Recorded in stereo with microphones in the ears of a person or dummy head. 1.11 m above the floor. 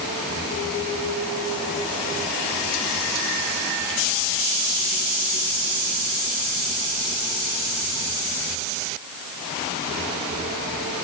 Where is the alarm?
I don't hear an alarm.